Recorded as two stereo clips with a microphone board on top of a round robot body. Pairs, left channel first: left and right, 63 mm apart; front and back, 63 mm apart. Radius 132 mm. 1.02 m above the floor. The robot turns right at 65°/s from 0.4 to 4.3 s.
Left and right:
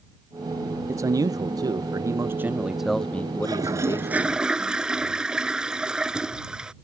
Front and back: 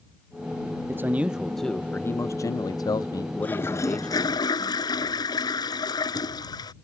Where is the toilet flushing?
70° right; by 6.7 s 10° right.